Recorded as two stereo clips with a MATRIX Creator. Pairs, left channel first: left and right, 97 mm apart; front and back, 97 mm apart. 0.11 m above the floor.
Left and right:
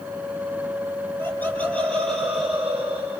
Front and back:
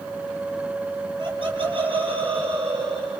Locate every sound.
1.2 s laughter: 155° left, 3 m; by 3.2 s 160° right, 3.5 m